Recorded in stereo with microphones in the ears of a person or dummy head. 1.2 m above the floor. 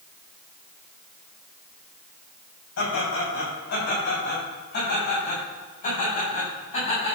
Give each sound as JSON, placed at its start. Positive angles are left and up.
{"t": 2.8, "sound": "laughter", "side_deg": 60, "distance_m": 7.0}